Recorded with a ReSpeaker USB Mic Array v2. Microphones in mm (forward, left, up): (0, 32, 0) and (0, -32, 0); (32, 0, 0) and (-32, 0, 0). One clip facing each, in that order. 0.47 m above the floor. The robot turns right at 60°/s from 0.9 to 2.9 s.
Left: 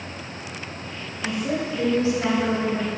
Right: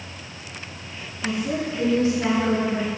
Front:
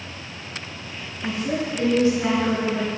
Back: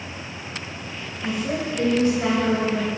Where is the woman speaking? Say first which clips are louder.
Even, even; 95° left, 2 m; by 2.9 s 165° right, 2 m.